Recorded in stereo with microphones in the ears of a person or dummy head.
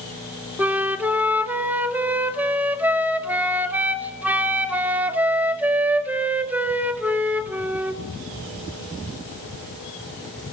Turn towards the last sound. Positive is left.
turn(degrees=-10)  # may be behind; listen again after turning